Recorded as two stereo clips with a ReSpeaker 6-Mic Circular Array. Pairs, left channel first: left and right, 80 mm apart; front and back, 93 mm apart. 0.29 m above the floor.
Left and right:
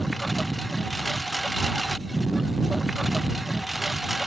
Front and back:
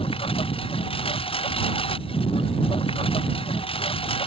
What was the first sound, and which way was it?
A lawn mower, straight ahead.